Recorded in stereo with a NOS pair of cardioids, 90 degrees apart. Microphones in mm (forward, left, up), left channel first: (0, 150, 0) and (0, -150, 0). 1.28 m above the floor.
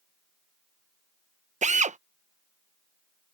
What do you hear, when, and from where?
1.6 s a drill: 25° right